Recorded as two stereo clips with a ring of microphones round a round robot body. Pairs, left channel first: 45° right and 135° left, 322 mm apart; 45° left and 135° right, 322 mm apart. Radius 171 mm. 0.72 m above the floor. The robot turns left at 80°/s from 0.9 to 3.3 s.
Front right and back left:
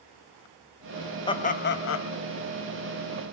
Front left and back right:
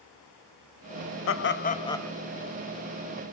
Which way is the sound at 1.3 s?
25° left.